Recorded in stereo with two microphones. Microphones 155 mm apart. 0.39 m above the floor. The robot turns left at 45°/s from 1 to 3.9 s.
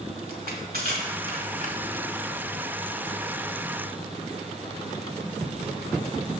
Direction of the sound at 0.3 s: 65° right (ahead or behind).